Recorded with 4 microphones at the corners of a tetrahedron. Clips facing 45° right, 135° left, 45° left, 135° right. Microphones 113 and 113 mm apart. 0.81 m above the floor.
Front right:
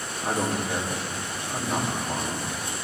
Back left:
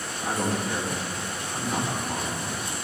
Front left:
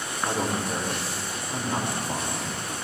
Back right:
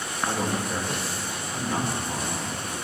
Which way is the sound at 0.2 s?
5° right.